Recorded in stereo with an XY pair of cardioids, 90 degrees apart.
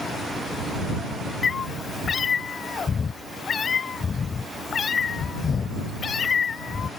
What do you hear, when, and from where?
1.4 s a cat meowing: 50° left